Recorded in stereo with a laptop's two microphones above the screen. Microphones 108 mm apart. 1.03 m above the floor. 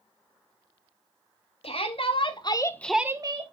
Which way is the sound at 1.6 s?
65° left (ahead or behind).